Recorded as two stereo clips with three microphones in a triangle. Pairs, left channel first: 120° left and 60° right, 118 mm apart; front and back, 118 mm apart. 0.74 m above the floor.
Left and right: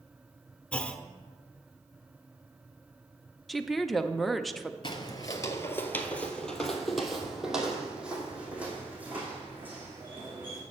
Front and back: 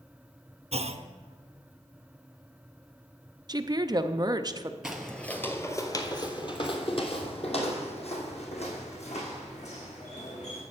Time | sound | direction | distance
0.7 | a clunk | 160° right | 0.5 m
3.5 | a woman speaking | 150° right | 0.5 m
4.8 | footsteps | 95° left | 0.9 m